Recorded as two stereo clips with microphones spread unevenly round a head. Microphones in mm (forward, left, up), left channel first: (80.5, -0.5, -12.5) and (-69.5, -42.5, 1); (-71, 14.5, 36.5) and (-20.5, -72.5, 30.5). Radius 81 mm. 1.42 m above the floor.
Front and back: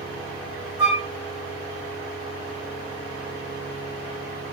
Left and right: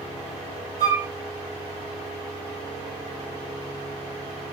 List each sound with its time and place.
0.8 s a flute: 90° right, 2 m